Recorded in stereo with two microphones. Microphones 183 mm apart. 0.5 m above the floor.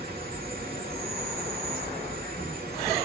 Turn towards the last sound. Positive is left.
turn(degrees=-60)  # may be behind; listen again after turning